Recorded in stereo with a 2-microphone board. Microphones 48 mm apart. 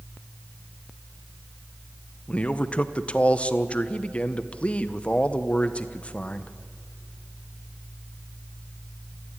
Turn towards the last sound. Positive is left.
turn(degrees=25)  # may be behind; listen again after turning